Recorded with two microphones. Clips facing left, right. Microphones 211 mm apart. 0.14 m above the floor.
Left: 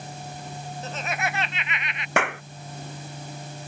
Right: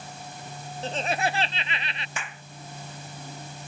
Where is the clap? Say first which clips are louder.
Left 20 dB; 70° left (ahead or behind).